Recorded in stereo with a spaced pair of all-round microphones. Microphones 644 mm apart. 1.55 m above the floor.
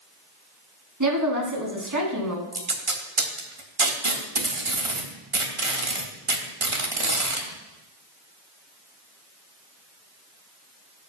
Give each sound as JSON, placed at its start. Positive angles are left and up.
{"t": 1.0, "sound": "a woman speaking", "side_deg": -30, "distance_m": 3.0}
{"t": 2.5, "sound": "tape being pulled", "side_deg": -50, "distance_m": 1.5}